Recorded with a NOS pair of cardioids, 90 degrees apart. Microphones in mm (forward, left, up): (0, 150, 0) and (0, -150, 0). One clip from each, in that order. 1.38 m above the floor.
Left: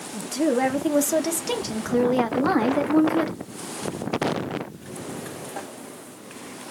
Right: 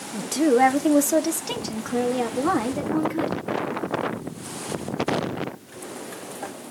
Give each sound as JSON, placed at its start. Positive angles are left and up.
{"t": 0.1, "sound": "a woman speaking", "azimuth_deg": -30, "distance_m": 1.1}